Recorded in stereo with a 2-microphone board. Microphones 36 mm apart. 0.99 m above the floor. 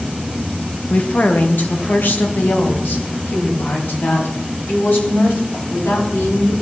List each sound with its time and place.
0.9 s a woman speaking: 45° left (ahead or behind), 0.8 m; by 6.5 s 80° left, 3.5 m